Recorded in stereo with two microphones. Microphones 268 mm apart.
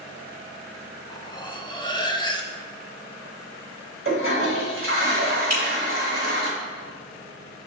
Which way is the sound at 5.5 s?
70° right (ahead or behind).